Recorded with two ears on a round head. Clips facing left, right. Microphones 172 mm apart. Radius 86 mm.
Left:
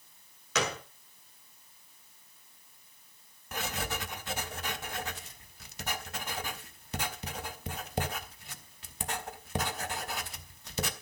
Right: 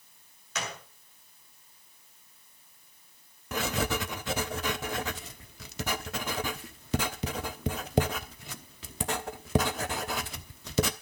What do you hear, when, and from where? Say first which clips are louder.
0.6 s a gunshot: left 6 dB; 60° left (ahead or behind), 1.2 m
3.5 s writing: right 7 dB; 60° right (ahead or behind), 0.9 m